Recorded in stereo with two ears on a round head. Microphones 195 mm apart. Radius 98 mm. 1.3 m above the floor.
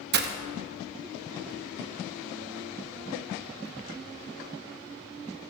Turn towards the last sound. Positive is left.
turn(degrees=-50)  # may be behind; listen again after turning